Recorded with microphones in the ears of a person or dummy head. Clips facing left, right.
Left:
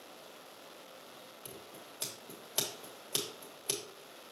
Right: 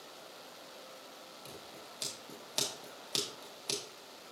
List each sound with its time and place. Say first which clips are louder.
1.4 s scissors: even; centre (ahead or behind), 1.2 m